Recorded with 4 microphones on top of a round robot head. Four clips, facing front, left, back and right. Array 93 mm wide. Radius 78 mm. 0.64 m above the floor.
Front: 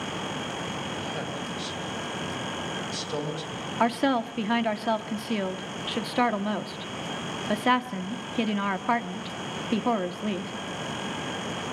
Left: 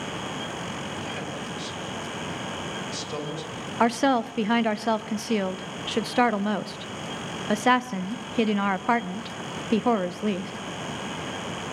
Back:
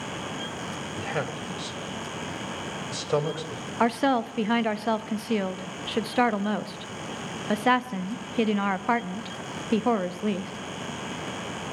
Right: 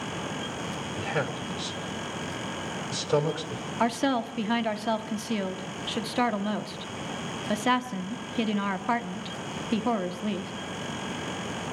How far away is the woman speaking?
About 0.9 m.